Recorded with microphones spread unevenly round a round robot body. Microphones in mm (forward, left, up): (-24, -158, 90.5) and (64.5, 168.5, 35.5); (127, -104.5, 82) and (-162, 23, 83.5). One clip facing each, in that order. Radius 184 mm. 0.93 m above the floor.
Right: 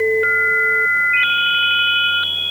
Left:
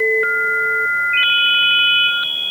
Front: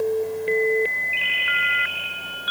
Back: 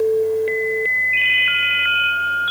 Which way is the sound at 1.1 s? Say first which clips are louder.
Right 1 dB, back 2 dB; straight ahead.